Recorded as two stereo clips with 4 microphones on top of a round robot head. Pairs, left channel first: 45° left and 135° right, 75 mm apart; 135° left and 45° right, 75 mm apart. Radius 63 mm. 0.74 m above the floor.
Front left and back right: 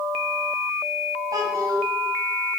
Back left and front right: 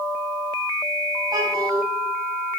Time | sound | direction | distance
1.3 | a child speaking | 85° right | 2.5 m